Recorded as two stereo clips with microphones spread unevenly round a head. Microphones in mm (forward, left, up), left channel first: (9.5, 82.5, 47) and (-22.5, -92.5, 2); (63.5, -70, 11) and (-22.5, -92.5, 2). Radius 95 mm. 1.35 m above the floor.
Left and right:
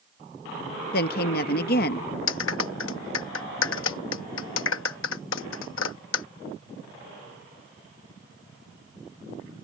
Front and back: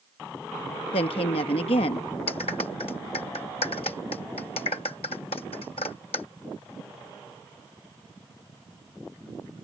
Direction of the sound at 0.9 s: 45° left.